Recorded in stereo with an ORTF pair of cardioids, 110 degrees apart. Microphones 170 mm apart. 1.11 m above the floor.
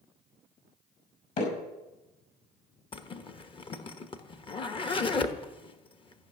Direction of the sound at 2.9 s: 30° left.